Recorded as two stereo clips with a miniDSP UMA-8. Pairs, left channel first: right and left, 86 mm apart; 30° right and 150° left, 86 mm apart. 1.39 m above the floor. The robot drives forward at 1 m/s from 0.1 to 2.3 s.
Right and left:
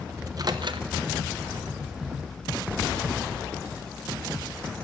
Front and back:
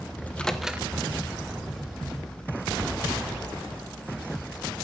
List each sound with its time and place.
0.2 s a microwave: 40° left, 1.0 m; by 0.9 s 85° left, 0.6 m